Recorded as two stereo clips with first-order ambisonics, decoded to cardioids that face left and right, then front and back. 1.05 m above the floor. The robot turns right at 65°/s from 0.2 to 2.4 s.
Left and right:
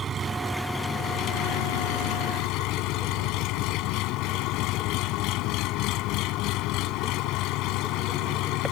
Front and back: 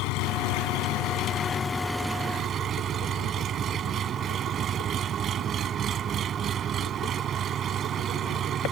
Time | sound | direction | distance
0.0 | an engine running | 20° right | ?